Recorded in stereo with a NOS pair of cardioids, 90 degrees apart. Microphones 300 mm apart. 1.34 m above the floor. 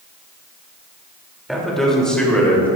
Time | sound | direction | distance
1.5 | a man speaking | straight ahead | 3.5 m